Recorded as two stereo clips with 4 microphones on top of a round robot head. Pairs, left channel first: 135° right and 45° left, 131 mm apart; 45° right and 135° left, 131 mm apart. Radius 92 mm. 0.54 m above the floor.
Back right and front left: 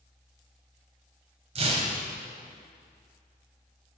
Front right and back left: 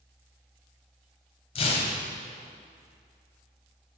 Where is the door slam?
No door slam in this recording.